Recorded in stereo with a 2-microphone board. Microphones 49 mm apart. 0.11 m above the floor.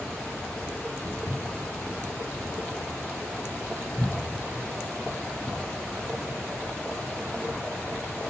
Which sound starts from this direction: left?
Footsteps, at 1.1 s.